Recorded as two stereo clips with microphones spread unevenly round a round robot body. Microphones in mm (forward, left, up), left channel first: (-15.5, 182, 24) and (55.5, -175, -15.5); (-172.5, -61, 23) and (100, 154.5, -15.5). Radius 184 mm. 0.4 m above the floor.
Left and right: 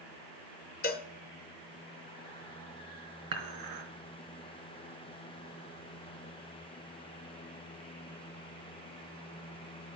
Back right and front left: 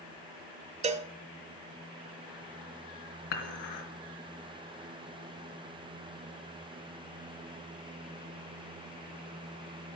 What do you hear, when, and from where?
0.8 s a cowbell: 55° left, 0.9 m
3.3 s dishes clattering: 115° right, 3.5 m